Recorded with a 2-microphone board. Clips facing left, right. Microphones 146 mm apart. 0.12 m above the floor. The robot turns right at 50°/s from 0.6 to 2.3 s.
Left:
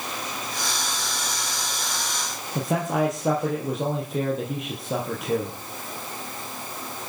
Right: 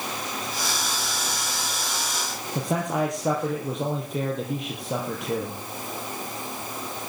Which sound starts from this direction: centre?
A man speaking, at 2.5 s.